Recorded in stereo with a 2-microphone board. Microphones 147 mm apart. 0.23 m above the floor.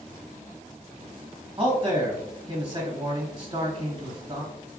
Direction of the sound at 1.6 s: 35° right (ahead or behind).